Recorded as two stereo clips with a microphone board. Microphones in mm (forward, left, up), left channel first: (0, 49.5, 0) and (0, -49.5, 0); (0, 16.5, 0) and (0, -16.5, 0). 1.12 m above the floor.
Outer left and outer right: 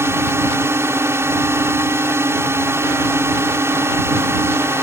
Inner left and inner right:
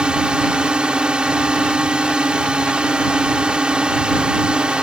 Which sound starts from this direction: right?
A drone, at 0.0 s.